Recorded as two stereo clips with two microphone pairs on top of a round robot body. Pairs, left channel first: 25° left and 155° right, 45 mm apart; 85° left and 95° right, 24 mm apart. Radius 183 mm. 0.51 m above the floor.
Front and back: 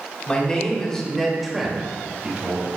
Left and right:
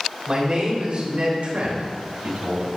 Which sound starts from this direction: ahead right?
A man speaking, at 0.3 s.